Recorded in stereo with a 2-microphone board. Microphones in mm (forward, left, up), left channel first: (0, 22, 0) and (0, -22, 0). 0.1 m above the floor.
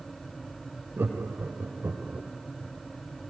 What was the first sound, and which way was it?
Laughter, 65° right (ahead or behind).